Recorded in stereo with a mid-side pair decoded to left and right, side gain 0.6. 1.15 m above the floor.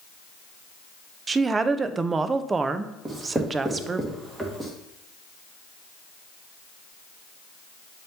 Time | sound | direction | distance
1.3 | a woman speaking | 30° right | 0.6 m
3.0 | writing | 15° right | 1.9 m